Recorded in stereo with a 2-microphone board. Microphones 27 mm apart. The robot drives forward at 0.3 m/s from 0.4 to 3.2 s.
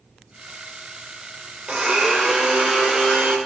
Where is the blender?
40° right (ahead or behind), 1.1 m; by 3.4 s 30° right (ahead or behind), 1.4 m.